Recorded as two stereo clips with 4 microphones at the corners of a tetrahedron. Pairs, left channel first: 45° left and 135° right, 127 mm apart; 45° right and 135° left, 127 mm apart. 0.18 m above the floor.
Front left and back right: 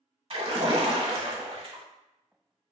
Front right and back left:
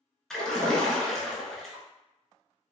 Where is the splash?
130° right, 0.6 m.